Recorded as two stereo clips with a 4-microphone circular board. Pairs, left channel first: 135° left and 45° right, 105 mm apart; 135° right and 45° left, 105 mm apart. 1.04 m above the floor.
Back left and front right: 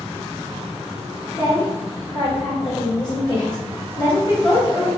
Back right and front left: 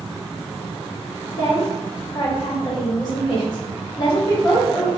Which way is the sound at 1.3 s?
Straight behind.